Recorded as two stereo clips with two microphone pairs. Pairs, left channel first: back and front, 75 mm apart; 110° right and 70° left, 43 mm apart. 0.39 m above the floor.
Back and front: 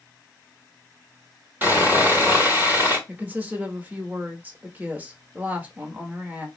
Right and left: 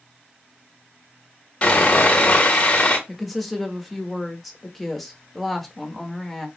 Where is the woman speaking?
25° right, 0.8 m.